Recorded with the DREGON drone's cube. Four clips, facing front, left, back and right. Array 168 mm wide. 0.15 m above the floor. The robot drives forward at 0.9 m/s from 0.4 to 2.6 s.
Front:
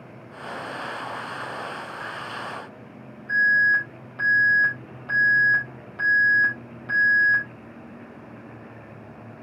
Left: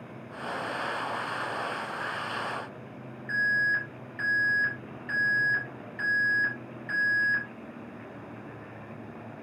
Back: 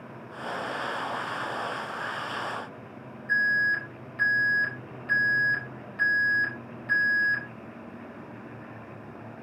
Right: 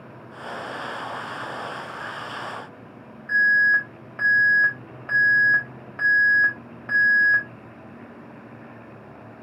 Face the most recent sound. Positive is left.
turn(degrees=-70)